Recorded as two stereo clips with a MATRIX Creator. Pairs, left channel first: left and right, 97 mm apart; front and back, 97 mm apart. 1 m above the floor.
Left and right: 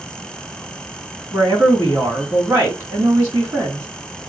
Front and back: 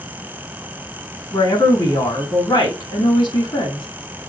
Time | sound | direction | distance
1.3 | a woman speaking | 30° right | 3.5 m